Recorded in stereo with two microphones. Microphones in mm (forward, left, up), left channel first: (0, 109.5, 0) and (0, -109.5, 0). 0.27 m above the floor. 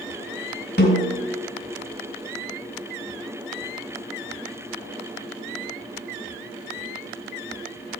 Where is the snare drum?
50° left (ahead or behind), 3.5 m.